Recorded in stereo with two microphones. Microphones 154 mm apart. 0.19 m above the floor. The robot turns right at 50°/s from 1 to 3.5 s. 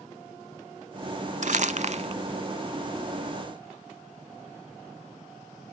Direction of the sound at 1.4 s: 60° right (ahead or behind).